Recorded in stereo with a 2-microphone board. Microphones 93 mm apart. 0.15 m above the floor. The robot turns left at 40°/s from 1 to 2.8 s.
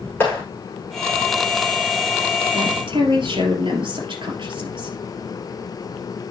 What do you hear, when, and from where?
0.2 s a clap: 20° left (ahead or behind), 7.5 m
2.5 s a woman speaking: 65° right (ahead or behind), 3 m